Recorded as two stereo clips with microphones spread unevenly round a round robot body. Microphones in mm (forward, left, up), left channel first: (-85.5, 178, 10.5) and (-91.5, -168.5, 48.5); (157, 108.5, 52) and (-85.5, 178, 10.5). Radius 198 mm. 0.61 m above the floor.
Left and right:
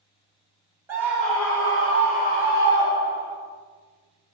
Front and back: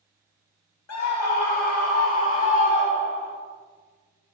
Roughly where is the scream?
Ahead.